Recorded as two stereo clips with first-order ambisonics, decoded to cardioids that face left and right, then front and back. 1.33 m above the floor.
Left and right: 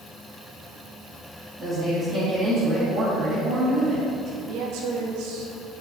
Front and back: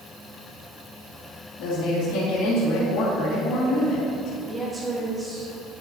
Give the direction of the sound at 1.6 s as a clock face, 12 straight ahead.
1 o'clock.